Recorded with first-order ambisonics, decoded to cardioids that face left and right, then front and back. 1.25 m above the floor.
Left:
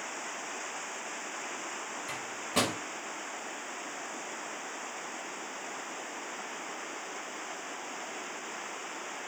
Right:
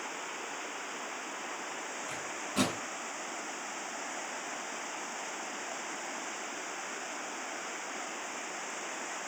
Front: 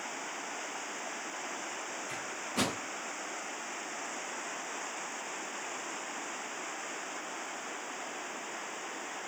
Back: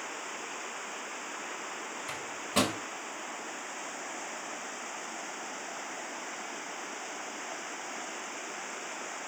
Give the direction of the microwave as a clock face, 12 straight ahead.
7 o'clock.